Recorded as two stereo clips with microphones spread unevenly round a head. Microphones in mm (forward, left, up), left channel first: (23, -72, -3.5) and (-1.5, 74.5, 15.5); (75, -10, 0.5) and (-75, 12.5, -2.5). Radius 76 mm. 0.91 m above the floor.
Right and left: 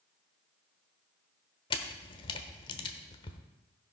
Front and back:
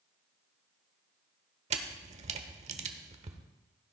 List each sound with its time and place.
1.7 s a camera shutter: 140° right, 1.0 m